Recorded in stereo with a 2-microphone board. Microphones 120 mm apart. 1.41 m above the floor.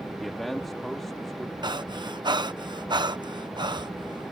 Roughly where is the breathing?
Right.